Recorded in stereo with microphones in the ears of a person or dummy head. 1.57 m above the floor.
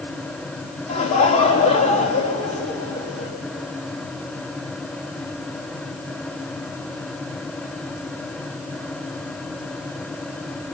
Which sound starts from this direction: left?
Laughter, at 0.9 s.